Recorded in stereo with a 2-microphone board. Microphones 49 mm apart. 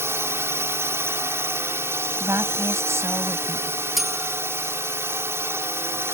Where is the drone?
65° right (ahead or behind).